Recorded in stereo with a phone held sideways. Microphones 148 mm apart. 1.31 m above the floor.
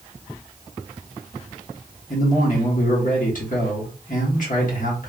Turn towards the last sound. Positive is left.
turn(degrees=65)  # may be behind; listen again after turning